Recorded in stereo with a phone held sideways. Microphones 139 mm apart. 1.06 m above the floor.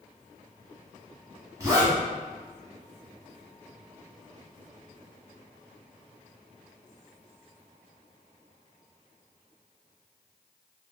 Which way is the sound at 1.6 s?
25° right (ahead or behind).